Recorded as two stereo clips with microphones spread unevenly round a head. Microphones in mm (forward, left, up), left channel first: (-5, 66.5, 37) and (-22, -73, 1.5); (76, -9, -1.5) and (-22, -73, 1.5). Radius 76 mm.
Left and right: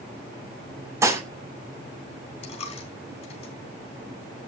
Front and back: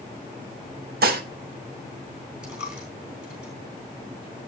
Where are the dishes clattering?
170° right, 2 m.